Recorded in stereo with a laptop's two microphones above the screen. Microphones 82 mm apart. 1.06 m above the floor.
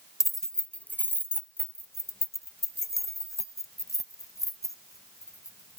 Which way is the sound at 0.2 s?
5° right (ahead or behind).